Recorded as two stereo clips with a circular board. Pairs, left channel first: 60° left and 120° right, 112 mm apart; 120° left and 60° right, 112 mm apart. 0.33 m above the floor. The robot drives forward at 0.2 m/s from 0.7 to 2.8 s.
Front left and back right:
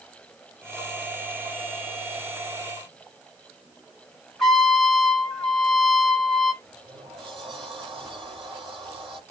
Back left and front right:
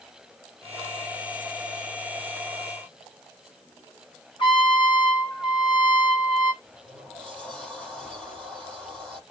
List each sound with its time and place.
4.4 s a trumpet: 150° left, 2.5 m
6.6 s a sliding door: 160° right, 6.5 m